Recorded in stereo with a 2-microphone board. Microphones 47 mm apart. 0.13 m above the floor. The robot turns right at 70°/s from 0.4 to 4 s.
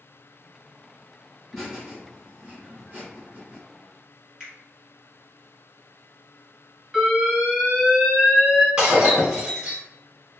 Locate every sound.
1.5 s laughter: 5° left (ahead or behind), 1.8 m; by 3.6 s 25° right (ahead or behind), 1.8 m
4.4 s a finger snap: 20° right (ahead or behind), 1.4 m
6.9 s an alarm: 10° right (ahead or behind), 1.9 m
8.8 s breaking glass: 20° right (ahead or behind), 1.9 m